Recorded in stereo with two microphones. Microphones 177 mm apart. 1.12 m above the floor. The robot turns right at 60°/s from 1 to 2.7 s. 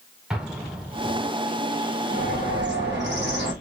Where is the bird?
125° right, 1.3 m; by 3.5 s 90° right, 1.3 m.